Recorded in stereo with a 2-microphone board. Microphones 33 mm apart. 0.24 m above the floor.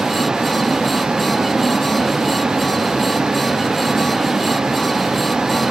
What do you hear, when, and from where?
0.0 s a vehicle: 20° right (ahead or behind)